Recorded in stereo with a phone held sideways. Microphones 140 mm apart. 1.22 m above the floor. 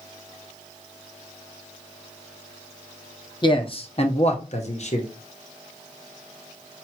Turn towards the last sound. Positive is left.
turn(degrees=50)  # may be behind; listen again after turning